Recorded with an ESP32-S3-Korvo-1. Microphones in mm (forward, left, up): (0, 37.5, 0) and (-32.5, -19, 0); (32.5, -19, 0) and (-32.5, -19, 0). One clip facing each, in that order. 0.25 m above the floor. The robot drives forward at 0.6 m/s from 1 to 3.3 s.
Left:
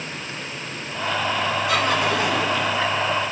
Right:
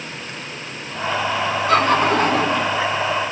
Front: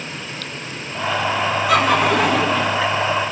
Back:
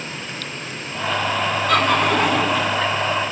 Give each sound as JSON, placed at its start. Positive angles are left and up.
{"t": 1.7, "sound": "laughter", "azimuth_deg": -80, "distance_m": 2.5}